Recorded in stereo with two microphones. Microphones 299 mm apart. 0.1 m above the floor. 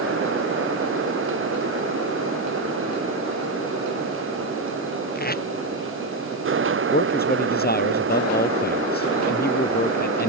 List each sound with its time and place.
5.2 s tape being pulled: 30° left (ahead or behind)
6.9 s a man speaking: 35° left (ahead or behind)